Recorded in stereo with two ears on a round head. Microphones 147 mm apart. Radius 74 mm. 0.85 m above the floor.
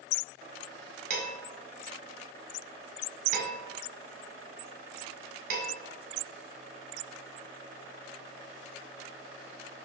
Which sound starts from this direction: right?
Dishes clattering, at 1.1 s.